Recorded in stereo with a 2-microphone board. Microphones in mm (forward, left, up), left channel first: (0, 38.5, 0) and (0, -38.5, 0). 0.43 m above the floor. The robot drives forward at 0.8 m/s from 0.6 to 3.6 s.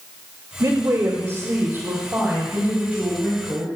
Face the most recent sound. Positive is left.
turn(degrees=-15)  # may be behind; listen again after turning